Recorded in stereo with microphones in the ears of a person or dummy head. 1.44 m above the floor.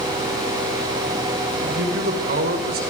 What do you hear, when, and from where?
1.6 s a man speaking: 60° right (ahead or behind), 5.5 m; by 2.8 s 50° right (ahead or behind), 4.5 m